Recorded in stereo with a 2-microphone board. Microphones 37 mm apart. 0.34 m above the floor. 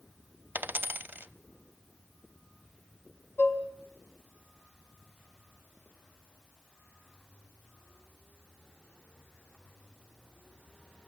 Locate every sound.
0.6 s a dropped coin: 65° right (ahead or behind), 0.7 m
3.4 s dishes clattering: 70° left (ahead or behind), 1.8 m